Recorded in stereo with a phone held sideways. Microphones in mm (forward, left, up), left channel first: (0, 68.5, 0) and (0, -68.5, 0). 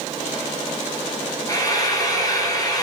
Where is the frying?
25° left (ahead or behind), 3 m.